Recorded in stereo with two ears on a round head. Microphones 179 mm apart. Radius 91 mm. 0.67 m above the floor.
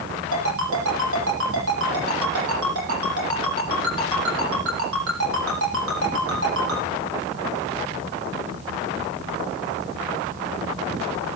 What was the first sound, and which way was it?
A ringtone, 70° right (ahead or behind).